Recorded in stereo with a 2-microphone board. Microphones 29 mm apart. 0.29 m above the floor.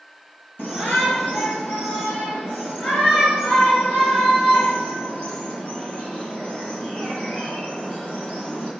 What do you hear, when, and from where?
0.6 s a shout: 75° left (ahead or behind), 6 m; by 8.7 s 45° left (ahead or behind), 9 m